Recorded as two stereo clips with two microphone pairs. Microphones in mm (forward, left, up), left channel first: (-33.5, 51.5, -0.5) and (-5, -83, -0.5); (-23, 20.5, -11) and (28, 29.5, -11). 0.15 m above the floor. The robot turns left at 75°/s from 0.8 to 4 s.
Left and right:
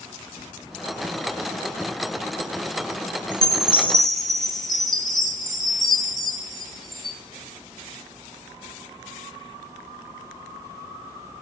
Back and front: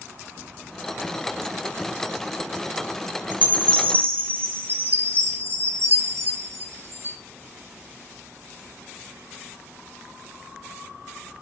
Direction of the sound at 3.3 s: 65° left.